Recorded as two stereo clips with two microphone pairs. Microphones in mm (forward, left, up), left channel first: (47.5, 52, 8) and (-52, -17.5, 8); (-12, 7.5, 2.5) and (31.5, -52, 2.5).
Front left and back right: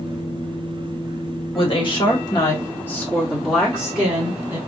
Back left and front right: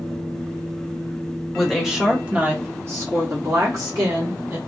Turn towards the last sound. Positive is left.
turn(degrees=-70)